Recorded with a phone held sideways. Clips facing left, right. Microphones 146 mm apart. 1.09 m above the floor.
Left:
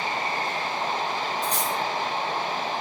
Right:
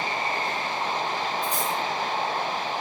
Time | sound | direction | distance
1.4 | cutlery clinking | 80° left | 2 m